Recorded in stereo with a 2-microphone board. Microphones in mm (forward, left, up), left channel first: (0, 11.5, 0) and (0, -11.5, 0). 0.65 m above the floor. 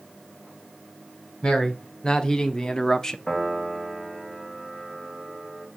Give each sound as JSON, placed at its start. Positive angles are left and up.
{"t": 1.4, "sound": "a man speaking", "side_deg": 35, "distance_m": 1.5}
{"t": 3.3, "sound": "a piano", "side_deg": 30, "distance_m": 2.0}